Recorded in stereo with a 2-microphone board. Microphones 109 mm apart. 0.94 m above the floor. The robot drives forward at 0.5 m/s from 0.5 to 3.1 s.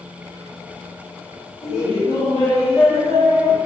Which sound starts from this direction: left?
Laughter, at 1.6 s.